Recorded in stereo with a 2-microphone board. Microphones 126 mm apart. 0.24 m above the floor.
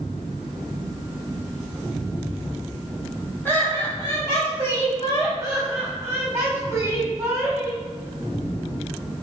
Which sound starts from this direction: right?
Laughter, at 5.4 s.